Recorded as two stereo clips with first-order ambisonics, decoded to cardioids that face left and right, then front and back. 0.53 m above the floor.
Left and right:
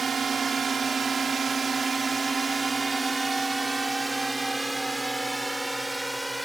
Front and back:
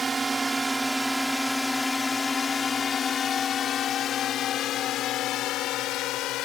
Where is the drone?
125° right; by 6.5 s 5° right.